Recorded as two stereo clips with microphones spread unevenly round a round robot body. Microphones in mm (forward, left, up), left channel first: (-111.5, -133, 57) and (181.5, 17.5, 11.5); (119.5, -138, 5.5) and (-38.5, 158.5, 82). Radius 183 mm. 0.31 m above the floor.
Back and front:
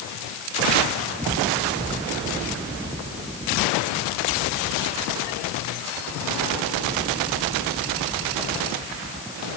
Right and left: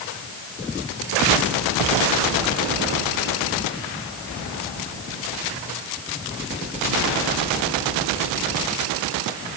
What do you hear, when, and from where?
Only background noise.